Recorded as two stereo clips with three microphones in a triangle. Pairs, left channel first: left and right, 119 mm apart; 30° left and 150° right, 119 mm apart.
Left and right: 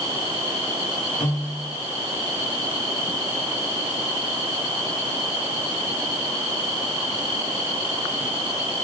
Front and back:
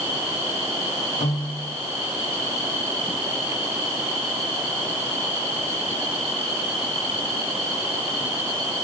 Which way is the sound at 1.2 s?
10° left.